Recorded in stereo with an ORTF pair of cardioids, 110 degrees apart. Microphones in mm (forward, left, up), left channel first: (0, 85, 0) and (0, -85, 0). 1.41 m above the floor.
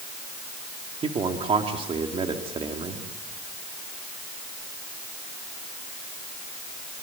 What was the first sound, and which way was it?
A man speaking, 35° right.